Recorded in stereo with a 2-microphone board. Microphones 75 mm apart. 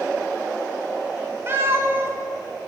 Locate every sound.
1.5 s a cat meowing: 30° right (ahead or behind), 0.8 m